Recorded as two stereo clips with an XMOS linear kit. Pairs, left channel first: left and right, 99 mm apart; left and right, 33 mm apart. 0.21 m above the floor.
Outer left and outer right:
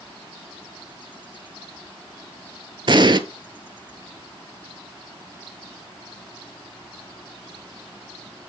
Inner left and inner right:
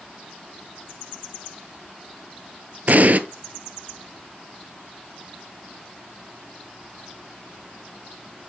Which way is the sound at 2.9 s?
50° right (ahead or behind).